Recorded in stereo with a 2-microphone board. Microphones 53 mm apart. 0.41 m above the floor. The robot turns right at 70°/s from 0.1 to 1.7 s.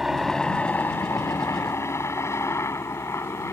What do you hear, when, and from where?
0.0 s a helicopter: 5° right (ahead or behind); by 3.5 s 65° left (ahead or behind)